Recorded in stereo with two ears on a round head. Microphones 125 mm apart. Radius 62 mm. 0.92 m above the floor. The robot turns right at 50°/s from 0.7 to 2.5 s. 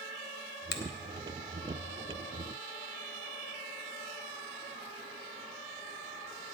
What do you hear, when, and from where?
0.7 s a finger snap: 85° left, 1.0 m